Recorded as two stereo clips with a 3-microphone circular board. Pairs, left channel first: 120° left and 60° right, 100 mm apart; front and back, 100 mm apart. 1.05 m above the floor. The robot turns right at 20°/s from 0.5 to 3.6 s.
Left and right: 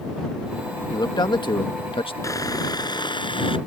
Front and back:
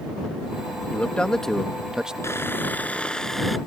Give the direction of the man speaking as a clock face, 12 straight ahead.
10 o'clock.